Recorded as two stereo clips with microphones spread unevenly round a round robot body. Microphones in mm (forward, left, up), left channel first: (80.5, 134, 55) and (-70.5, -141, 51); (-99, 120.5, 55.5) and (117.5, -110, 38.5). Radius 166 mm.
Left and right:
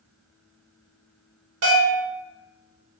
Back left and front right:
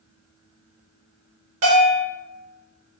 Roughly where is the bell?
Right.